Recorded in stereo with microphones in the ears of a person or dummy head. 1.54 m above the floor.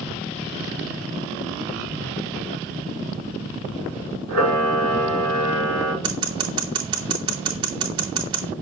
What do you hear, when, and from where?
4.3 s a camera shutter: 75° right (ahead or behind), 4.5 m
6.0 s scissors: 25° right (ahead or behind), 2.5 m